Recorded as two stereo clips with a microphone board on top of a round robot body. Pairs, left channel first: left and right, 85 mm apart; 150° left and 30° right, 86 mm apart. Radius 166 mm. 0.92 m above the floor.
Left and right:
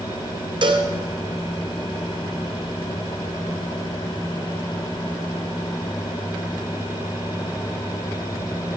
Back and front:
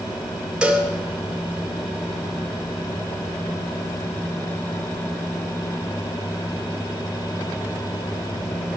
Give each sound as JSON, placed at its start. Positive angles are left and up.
{"t": 0.6, "sound": "a cowbell", "azimuth_deg": -110, "distance_m": 2.0}